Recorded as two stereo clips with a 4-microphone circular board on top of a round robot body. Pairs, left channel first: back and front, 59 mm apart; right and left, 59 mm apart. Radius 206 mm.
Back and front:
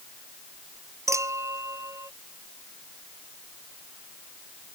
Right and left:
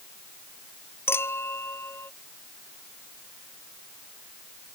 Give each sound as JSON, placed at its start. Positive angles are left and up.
{"t": 1.1, "sound": "a clink", "azimuth_deg": -35}